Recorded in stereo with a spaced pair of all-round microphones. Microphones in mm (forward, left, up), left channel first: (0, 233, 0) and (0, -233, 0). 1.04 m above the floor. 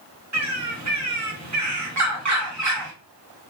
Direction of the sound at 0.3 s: 40° right (ahead or behind).